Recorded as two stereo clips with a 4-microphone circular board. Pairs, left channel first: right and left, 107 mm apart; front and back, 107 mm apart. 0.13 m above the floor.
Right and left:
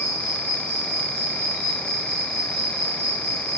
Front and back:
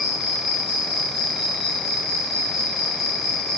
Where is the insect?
145° left, 4 m.